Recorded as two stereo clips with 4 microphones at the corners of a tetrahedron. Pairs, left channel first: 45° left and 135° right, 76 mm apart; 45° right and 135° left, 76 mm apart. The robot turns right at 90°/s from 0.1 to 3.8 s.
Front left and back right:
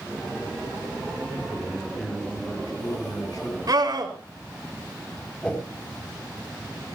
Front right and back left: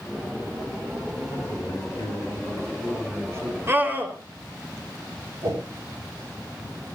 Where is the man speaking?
105° right, 6.5 m; by 3.6 s 100° left, 6.5 m.